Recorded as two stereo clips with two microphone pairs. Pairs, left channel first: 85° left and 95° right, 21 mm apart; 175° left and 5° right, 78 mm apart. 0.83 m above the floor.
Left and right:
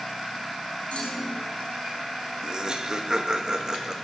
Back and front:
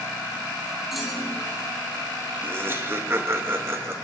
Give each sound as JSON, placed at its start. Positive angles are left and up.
{"t": 0.9, "sound": "a clunk", "azimuth_deg": 85, "distance_m": 3.5}
{"t": 2.4, "sound": "laughter", "azimuth_deg": -55, "distance_m": 1.0}